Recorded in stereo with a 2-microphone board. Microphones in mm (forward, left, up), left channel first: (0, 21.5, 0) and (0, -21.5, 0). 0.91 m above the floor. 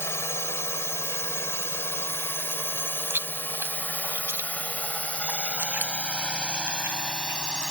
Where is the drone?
75° left (ahead or behind); by 7.7 s 15° left (ahead or behind).